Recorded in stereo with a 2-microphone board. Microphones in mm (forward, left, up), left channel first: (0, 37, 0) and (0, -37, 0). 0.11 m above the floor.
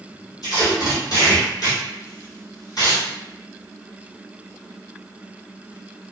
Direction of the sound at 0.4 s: 65° left (ahead or behind).